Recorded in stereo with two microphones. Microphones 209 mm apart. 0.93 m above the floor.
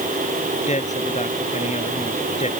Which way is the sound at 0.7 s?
35° left (ahead or behind).